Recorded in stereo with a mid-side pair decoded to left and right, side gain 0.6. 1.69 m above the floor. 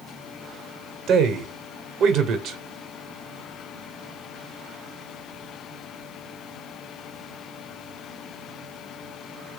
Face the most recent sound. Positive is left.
turn(degrees=-50)